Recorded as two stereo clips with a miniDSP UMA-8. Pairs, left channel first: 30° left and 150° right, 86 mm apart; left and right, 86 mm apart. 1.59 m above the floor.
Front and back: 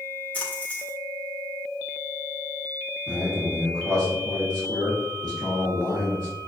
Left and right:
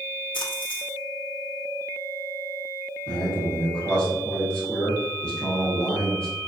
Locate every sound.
0.3 s a splash: 100° left, 1.1 m
3.1 s a man speaking: 170° left, 1.6 m